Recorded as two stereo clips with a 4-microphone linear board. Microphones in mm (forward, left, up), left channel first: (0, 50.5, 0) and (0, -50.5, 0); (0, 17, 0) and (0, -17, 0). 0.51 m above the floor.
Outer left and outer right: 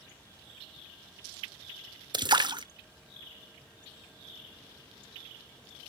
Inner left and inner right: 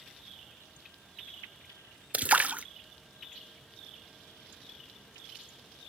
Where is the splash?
45° right (ahead or behind), 0.5 m.